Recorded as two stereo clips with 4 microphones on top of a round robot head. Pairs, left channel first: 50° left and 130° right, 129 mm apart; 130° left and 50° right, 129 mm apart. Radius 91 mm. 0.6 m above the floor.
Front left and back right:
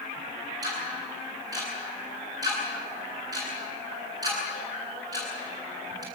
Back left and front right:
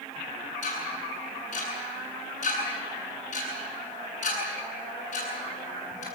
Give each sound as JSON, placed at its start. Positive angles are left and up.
{"t": 0.6, "sound": "ticking", "azimuth_deg": 165, "distance_m": 9.5}